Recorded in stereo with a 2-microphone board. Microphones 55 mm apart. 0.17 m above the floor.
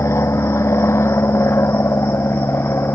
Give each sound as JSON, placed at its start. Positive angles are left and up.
{"t": 0.0, "sound": "an aircraft", "side_deg": 55}